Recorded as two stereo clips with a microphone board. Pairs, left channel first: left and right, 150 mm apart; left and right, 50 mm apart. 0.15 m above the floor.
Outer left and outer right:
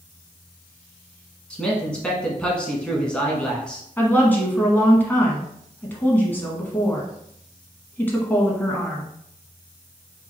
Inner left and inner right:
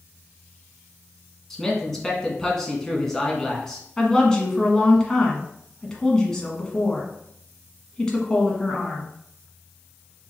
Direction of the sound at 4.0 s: 10° left (ahead or behind).